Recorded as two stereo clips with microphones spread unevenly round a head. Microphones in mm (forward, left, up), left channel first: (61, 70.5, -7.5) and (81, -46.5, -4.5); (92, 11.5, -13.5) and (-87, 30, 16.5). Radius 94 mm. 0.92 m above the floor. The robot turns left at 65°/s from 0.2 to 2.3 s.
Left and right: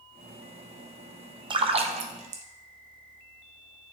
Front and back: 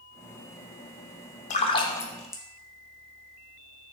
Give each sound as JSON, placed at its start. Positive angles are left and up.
{"t": 1.5, "sound": "a splash", "azimuth_deg": -40, "distance_m": 0.8}